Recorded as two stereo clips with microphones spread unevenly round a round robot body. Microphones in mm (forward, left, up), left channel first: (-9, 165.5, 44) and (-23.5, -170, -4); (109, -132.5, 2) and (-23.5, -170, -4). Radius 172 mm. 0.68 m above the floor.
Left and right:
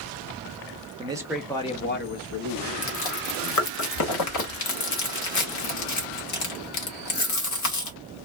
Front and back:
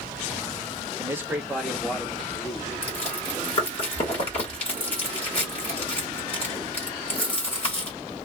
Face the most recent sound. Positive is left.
turn(degrees=60)